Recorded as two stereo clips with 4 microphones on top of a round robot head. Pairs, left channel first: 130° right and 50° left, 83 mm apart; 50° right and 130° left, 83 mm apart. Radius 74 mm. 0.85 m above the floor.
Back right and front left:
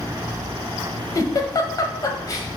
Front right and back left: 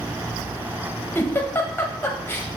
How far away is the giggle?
About 0.8 m.